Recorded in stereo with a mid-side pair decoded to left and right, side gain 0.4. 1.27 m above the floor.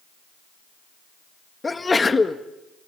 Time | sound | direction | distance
1.6 | a sneeze | 30° left | 1.6 m